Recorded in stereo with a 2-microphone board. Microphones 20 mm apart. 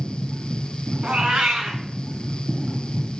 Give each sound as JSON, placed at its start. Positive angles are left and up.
{"t": 1.0, "sound": "a cat meowing", "side_deg": -60, "distance_m": 1.3}